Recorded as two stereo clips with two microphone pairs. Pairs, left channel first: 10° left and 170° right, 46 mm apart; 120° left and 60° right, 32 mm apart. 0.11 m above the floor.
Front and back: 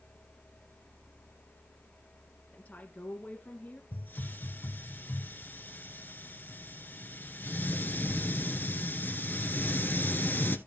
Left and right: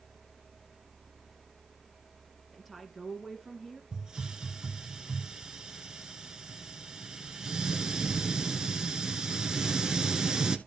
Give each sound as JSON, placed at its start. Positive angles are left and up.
{"t": 2.5, "sound": "a woman speaking", "azimuth_deg": 20, "distance_m": 2.0}
{"t": 3.9, "sound": "a hiss", "azimuth_deg": -5, "distance_m": 1.7}